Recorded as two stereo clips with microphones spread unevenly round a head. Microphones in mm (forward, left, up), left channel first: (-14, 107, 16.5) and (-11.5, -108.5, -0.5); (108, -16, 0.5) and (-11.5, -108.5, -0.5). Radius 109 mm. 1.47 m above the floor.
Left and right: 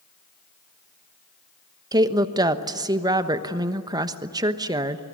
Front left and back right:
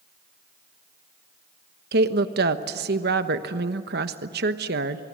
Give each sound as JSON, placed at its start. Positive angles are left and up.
{"t": 1.9, "sound": "a woman speaking", "azimuth_deg": -165, "distance_m": 1.2}